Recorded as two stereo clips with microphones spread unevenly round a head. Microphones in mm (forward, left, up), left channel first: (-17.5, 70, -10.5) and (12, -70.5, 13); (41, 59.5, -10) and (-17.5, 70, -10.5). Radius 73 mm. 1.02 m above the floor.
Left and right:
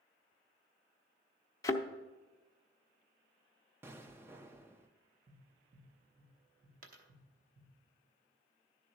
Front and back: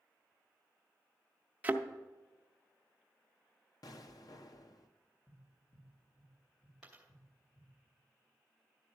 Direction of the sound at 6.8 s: 100° right.